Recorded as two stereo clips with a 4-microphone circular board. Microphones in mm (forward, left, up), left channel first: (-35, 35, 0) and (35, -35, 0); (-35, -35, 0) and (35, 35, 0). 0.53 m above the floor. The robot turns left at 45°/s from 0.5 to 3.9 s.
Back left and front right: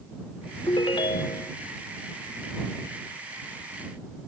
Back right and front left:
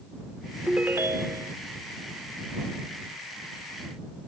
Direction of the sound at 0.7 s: 120° left.